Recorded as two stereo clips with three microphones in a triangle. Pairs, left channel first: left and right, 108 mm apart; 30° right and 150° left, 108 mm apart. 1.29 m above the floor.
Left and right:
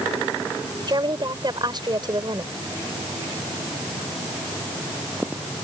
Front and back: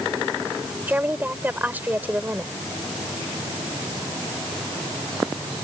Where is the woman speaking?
135° right.